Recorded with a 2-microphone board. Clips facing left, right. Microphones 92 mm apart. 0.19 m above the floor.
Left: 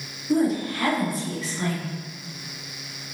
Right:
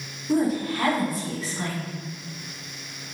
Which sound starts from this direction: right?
A woman speaking, at 0.3 s.